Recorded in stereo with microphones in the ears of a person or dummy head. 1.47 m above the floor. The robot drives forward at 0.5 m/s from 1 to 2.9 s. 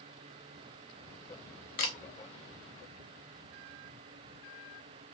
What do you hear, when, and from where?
1.8 s a camera shutter: 45° left (ahead or behind), 0.6 m